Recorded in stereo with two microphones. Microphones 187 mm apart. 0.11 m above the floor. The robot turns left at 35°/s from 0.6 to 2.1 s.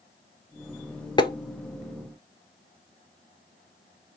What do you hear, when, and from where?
1.2 s tapping: 25° left (ahead or behind), 0.6 m